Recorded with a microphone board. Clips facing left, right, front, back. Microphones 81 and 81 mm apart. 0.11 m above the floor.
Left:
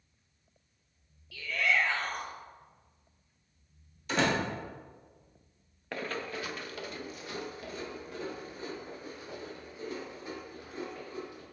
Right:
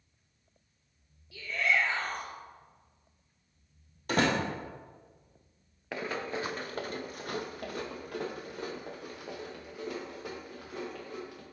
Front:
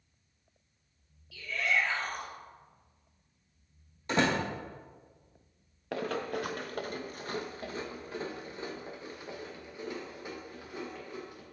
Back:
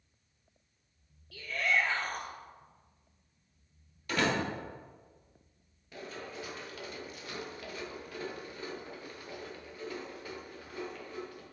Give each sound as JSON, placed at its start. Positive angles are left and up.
{"t": 1.3, "sound": "a shout", "azimuth_deg": -150, "distance_m": 2.0}
{"t": 4.1, "sound": "a door slam", "azimuth_deg": -60, "distance_m": 2.0}
{"t": 5.9, "sound": "running footsteps", "azimuth_deg": -5, "distance_m": 0.6}